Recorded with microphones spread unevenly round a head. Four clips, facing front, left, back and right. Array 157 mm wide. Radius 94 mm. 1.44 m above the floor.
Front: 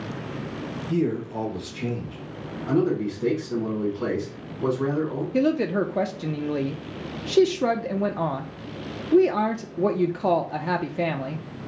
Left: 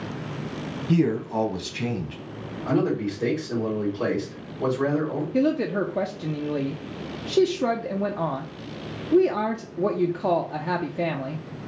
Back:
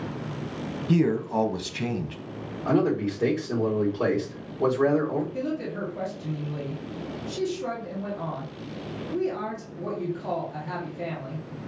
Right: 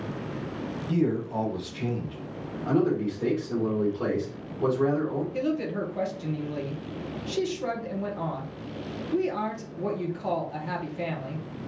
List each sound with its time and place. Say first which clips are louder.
0.9 s a man speaking: left 4 dB, back 2 dB; 130° left, 1.3 m
2.6 s a man speaking: left 1 dB, even; 170° left, 2.5 m
5.3 s a woman speaking: left 6 dB, front 8 dB; 35° left, 0.6 m